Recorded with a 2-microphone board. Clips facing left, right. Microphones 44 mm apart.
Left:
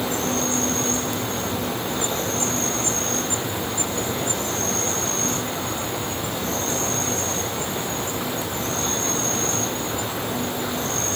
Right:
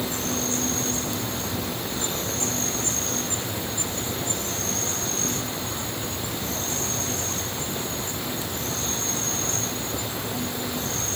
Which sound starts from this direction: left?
An insect, at 0.0 s.